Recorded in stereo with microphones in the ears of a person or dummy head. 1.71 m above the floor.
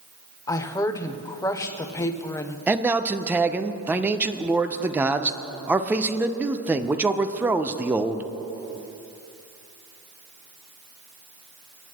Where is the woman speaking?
25° left (ahead or behind), 0.7 m.